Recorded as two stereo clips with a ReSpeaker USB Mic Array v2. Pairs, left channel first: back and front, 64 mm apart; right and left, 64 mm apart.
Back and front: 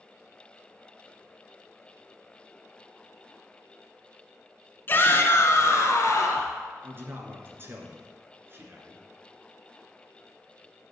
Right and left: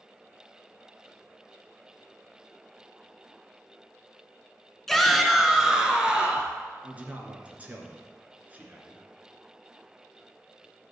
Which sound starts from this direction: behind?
A shout, at 4.9 s.